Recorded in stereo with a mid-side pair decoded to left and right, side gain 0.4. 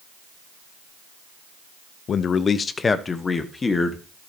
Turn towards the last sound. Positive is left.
turn(degrees=30)